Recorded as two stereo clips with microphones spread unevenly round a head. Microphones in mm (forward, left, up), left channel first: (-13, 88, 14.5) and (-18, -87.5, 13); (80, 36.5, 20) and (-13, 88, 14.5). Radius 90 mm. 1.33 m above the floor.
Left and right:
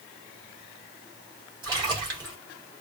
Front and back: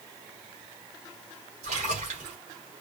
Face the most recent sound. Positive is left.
turn(degrees=-160)